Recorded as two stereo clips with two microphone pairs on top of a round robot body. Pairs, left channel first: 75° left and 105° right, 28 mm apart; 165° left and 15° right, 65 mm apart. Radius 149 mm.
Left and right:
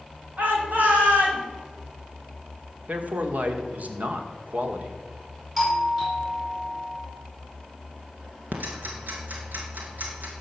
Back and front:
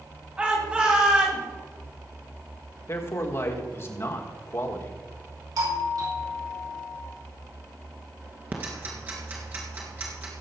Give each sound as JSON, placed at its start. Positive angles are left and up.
{"t": 0.4, "sound": "a shout", "azimuth_deg": -85, "distance_m": 4.0}
{"t": 2.9, "sound": "a man speaking", "azimuth_deg": -145, "distance_m": 1.9}
{"t": 5.6, "sound": "a doorbell", "azimuth_deg": -25, "distance_m": 5.5}
{"t": 8.5, "sound": "ticking", "azimuth_deg": -80, "distance_m": 1.8}